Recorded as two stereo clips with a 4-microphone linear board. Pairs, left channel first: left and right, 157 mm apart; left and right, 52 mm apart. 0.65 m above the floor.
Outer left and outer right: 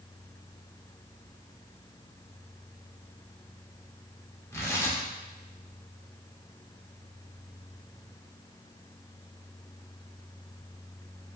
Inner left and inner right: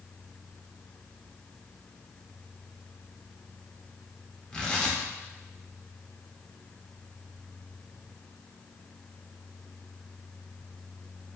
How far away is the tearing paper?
About 1.0 m.